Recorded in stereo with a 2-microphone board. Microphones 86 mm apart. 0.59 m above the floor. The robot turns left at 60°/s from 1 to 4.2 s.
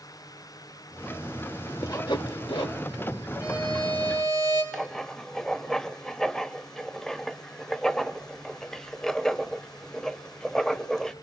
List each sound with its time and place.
1.8 s sawing: 45° left (ahead or behind), 1.4 m; by 2.8 s 70° left (ahead or behind), 1.4 m
3.4 s a violin: 140° left, 5.5 m; by 4.6 s 90° left, 5.5 m
4.7 s writing: 5° left (ahead or behind), 0.6 m